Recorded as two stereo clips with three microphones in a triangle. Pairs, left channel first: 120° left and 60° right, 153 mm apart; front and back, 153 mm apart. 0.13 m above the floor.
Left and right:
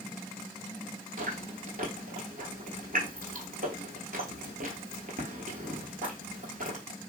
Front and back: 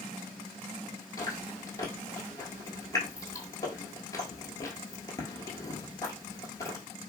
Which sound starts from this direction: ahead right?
Chewing, at 1.2 s.